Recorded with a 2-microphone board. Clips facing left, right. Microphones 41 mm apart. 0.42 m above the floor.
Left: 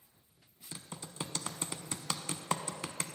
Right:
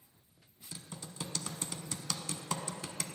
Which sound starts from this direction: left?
Typing on a keyboard, at 0.7 s.